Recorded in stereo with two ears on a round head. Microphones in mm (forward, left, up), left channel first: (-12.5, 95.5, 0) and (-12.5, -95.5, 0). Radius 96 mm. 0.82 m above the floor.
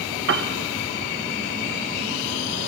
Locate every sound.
0.3 s a piano: 60° right (ahead or behind), 0.8 m